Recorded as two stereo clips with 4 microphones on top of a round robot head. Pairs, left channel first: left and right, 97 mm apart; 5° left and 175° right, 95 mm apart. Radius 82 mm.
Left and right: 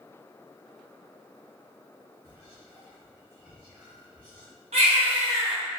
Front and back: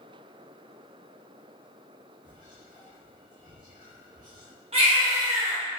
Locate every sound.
2.2 s whispering: 15° right, 1.1 m
4.7 s a baby crying: 130° right, 0.7 m